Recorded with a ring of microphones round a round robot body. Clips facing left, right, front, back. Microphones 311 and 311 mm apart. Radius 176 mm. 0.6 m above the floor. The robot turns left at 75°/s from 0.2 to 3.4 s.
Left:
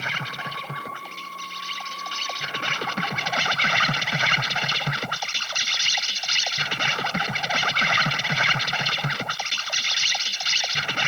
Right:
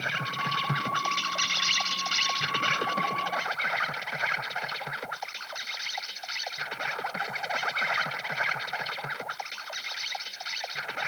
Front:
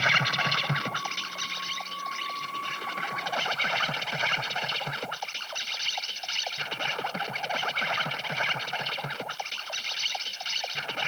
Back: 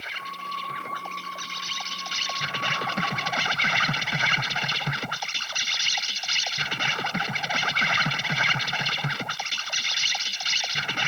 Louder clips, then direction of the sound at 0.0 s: Left 1 dB, front 11 dB; 5° left.